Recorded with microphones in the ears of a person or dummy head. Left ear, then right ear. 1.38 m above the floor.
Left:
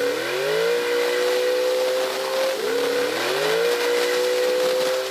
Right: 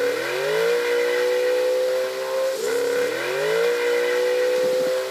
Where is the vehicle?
10° right (ahead or behind).